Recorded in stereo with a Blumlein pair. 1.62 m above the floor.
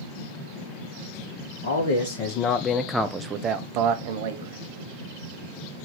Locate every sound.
1.6 s a man speaking: 60° left, 0.8 m; by 4.6 s 60° right, 1.0 m